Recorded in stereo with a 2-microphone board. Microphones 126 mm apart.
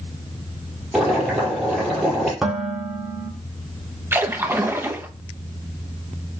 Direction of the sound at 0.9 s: Centre (ahead or behind).